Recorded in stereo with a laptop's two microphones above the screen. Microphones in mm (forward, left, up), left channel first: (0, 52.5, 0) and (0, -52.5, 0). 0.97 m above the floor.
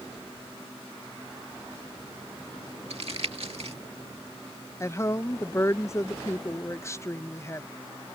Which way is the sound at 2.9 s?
70° right (ahead or behind).